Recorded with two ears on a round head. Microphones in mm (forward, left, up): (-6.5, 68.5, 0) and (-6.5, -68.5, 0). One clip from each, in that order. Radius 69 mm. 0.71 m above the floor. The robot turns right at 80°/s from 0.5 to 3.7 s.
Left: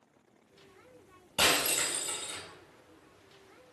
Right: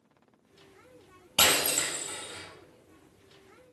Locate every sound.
1.4 s breaking glass: 20° right, 4 m; by 2.4 s 60° left, 4 m